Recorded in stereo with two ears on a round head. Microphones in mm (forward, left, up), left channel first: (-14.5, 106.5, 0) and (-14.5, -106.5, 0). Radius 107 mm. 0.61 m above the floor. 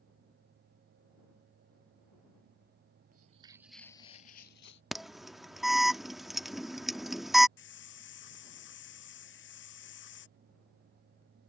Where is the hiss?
55° left (ahead or behind).